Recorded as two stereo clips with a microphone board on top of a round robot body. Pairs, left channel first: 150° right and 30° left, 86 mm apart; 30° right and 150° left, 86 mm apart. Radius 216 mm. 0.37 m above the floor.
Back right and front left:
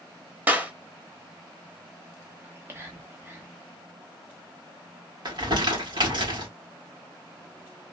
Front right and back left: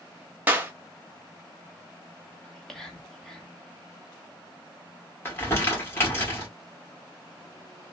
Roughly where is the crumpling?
Ahead left.